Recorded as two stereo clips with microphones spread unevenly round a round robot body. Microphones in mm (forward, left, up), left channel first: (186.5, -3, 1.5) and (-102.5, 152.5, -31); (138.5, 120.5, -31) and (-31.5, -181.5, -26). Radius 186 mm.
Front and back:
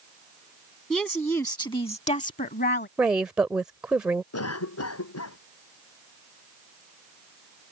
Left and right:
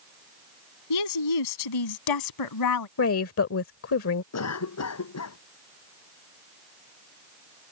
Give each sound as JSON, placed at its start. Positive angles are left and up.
{"t": 0.9, "sound": "a woman speaking", "azimuth_deg": 60}
{"t": 3.0, "sound": "a woman speaking", "azimuth_deg": 75}
{"t": 4.3, "sound": "a cough", "azimuth_deg": 15}